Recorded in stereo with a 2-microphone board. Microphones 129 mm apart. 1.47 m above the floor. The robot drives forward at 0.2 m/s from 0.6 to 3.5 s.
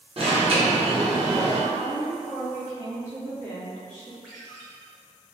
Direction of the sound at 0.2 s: 50° right (ahead or behind).